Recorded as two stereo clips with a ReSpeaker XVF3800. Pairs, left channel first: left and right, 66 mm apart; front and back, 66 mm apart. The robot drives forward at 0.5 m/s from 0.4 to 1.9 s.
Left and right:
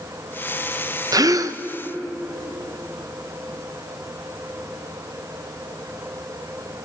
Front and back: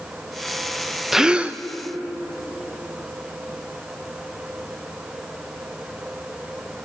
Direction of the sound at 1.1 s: 95° right.